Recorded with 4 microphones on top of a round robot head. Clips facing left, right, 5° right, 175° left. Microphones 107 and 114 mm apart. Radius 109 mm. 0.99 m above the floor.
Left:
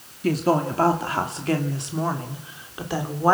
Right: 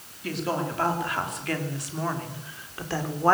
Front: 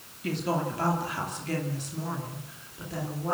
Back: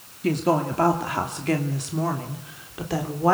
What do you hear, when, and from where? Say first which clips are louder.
0.2 s a woman speaking: left 8 dB, back 7 dB; 130° left, 2.5 m; by 3.3 s 170° left, 3.5 m